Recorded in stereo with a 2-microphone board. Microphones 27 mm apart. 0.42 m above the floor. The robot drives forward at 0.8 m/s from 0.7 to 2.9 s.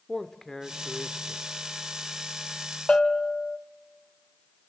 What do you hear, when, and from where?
0.1 s a man speaking: 15° left (ahead or behind), 1.1 m
2.9 s a bell: 40° left (ahead or behind), 0.9 m